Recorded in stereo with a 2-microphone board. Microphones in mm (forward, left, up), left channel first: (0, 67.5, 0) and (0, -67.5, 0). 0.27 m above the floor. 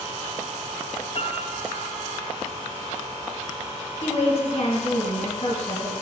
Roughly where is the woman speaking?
Left.